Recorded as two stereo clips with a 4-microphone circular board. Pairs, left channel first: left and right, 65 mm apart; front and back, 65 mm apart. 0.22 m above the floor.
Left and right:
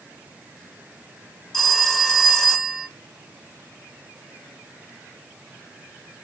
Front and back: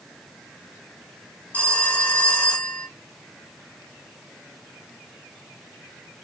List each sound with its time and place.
1.5 s a phone ringing: 20° left, 0.8 m